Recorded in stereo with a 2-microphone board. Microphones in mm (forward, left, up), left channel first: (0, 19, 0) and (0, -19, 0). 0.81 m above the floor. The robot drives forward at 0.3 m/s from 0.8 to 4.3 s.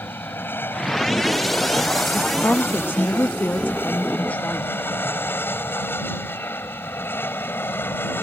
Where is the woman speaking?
50° left (ahead or behind).